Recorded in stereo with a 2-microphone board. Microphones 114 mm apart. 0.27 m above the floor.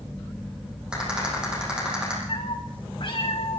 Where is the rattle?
5° right (ahead or behind), 8 m.